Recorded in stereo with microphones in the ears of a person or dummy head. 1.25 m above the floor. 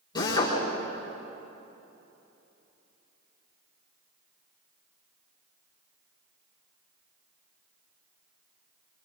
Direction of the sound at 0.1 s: 20° left (ahead or behind).